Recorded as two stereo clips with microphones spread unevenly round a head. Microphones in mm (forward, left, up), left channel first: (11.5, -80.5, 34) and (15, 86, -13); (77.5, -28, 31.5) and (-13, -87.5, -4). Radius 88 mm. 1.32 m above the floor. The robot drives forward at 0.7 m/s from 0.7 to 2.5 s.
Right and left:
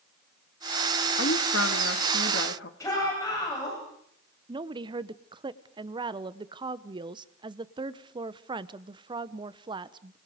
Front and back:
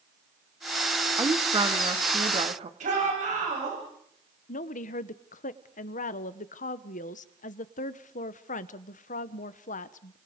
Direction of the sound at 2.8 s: 165° right.